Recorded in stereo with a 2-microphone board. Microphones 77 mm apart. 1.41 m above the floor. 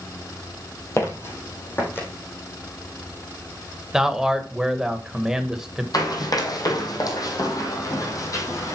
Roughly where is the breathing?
I don't hear breathing.